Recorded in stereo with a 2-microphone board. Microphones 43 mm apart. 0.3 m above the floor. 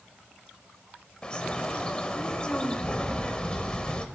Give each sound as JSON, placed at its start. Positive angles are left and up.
{"t": 1.2, "sound": "a bird", "side_deg": 25, "distance_m": 0.8}